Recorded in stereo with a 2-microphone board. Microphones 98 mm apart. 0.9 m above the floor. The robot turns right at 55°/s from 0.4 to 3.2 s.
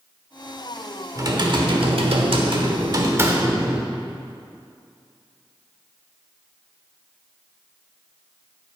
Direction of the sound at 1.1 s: 140° right.